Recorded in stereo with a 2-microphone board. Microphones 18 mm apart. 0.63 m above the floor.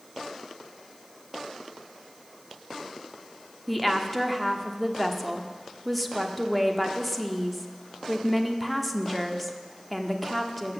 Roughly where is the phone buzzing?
I don't hear a phone buzzing.